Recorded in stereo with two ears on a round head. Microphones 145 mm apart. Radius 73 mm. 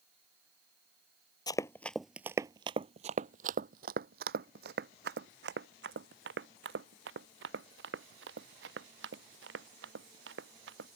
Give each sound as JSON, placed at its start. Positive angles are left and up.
{"t": 1.5, "sound": "running footsteps", "side_deg": 25}